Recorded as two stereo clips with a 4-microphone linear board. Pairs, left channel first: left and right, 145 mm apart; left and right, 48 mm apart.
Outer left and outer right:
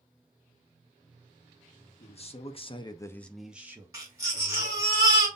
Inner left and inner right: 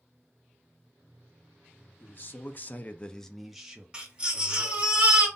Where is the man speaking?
45° left (ahead or behind), 1.0 m; by 4.9 s 25° right (ahead or behind), 1.7 m.